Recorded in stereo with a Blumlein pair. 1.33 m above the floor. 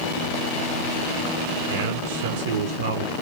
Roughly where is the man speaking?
Ahead right.